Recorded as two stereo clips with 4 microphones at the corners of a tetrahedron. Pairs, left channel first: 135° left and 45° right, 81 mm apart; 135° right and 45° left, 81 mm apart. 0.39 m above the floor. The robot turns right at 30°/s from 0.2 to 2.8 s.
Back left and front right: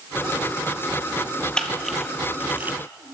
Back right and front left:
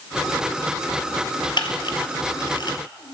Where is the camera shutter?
145° right, 1.4 m; by 3.1 s 110° right, 1.4 m.